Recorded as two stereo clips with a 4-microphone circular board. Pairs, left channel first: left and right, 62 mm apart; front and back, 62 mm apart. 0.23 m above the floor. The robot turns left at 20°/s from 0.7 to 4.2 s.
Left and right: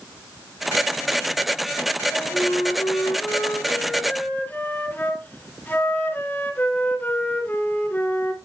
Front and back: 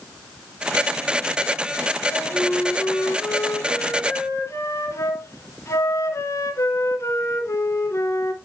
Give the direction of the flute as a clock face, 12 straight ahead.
10 o'clock.